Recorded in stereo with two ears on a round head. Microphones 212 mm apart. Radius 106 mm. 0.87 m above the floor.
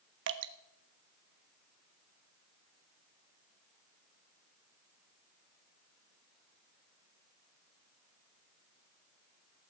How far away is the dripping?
About 1.2 m.